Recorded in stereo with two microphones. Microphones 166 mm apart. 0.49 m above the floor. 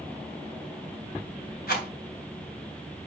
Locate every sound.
1.7 s a rattle: 65° left (ahead or behind), 3 m